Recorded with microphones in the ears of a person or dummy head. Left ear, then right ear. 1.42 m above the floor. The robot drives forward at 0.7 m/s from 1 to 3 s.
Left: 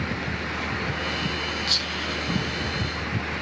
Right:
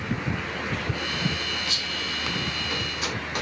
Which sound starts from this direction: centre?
Whispering, at 1.7 s.